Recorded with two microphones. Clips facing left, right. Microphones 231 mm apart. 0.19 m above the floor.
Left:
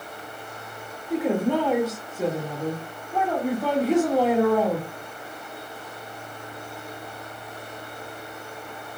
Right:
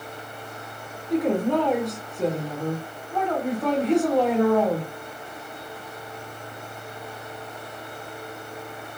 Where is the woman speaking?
5° left (ahead or behind), 1.6 m.